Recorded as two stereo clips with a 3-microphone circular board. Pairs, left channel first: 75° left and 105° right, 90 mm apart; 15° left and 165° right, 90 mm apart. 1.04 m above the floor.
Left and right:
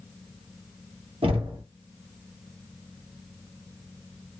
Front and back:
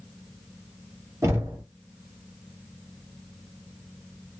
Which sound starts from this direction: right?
Knocking, at 1.2 s.